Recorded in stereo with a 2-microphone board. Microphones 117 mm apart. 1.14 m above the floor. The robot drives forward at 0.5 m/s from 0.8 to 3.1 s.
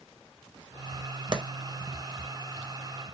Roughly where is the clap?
Right.